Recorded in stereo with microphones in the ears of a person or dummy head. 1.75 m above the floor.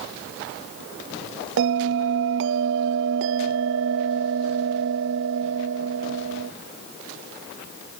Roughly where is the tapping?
No tapping in this recording.